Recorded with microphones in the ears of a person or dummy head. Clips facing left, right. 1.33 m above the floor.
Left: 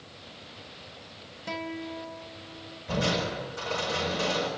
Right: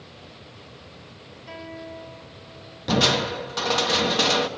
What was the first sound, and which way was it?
A guitar, 70° left (ahead or behind).